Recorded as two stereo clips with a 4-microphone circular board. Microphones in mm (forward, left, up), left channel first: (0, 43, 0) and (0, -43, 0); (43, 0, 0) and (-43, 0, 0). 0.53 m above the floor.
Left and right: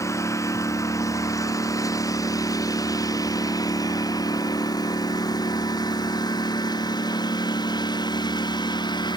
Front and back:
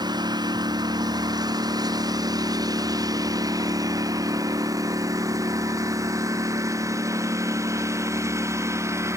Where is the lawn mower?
145° left; by 9.2 s 125° left.